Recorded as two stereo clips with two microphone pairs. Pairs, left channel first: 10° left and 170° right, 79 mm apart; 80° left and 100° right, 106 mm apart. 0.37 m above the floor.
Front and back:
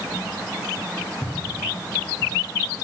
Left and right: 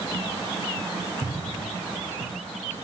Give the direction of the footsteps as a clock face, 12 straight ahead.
2 o'clock.